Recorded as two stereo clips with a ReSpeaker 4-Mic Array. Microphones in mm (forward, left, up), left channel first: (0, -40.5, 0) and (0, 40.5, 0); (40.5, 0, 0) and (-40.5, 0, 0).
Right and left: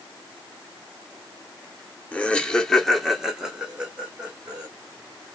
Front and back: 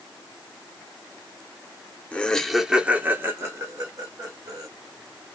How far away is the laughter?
About 0.9 m.